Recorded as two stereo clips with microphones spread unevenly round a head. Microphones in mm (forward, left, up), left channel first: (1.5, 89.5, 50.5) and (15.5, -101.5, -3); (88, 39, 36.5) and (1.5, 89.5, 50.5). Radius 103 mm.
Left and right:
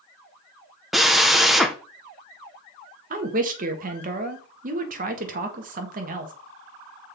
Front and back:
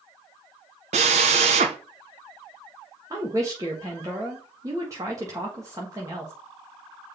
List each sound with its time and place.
0.9 s a drill: straight behind, 0.6 m
3.1 s a woman speaking: 140° right, 1.3 m